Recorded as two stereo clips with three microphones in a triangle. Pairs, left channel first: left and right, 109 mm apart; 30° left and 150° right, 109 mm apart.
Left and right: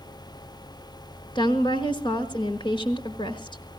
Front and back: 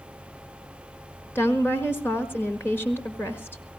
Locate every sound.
1.4 s a woman speaking: 90° left, 1.6 m